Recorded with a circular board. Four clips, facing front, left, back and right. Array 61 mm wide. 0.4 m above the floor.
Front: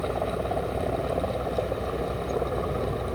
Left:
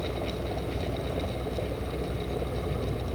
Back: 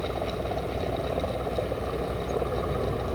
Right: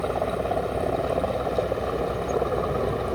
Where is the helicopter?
75° right; by 3.1 s 90° right.